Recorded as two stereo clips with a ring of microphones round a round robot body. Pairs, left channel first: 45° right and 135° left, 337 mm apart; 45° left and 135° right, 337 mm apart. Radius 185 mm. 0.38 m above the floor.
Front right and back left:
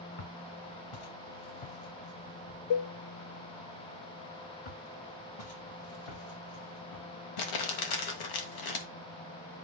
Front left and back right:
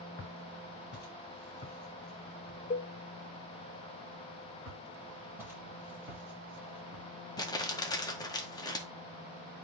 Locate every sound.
0.2 s footsteps: 15° right, 2.5 m; by 2.6 s 20° right, 6 m
2.7 s a cowbell: 20° right, 0.5 m
4.7 s footsteps: 50° right, 7.5 m
7.4 s crumpling: 35° right, 1.8 m